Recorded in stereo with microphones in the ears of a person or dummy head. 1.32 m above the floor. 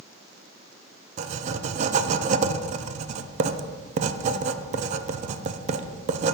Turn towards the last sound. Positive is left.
turn(degrees=-40)  # may be behind; listen again after turning